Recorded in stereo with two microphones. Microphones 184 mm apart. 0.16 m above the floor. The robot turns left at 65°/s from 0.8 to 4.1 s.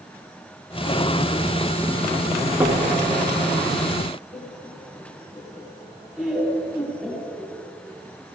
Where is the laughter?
5° right (ahead or behind), 3.5 m.